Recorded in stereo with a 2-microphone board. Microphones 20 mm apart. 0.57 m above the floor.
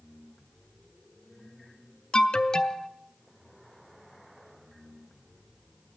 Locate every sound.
2.1 s an alarm: 35° left (ahead or behind), 0.6 m